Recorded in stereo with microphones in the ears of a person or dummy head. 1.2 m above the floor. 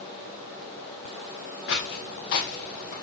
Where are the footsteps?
55° left (ahead or behind), 1.9 m; by 2.9 s 50° left (ahead or behind), 2 m.